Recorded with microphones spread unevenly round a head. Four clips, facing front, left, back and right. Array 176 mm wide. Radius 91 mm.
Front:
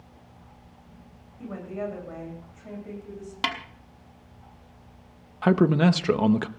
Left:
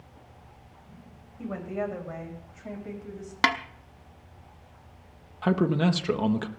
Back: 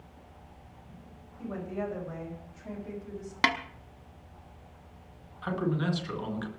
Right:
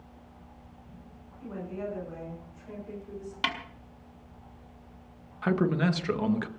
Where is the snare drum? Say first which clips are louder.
Left 8 dB, back 2 dB; 110° left, 1.0 m.